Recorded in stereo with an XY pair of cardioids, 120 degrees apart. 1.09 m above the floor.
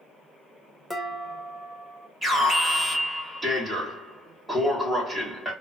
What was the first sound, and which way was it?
Dishes clattering, 5° right.